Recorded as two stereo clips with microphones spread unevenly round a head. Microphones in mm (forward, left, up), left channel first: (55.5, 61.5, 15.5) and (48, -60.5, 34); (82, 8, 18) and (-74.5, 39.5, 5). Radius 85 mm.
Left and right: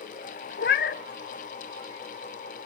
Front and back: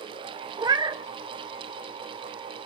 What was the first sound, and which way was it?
A cat meowing, 100° left.